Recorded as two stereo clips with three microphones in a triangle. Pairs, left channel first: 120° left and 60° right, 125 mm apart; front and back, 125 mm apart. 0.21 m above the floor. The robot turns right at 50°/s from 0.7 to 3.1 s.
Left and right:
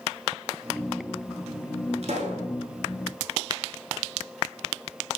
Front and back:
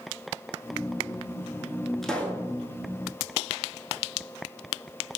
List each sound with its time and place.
2.0 s a pop: 90° right, 0.6 m; by 2.5 s 65° right, 0.6 m